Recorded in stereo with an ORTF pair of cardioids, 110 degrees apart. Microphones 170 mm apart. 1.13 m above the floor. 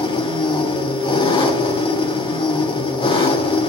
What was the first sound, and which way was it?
An engine running, 30° left.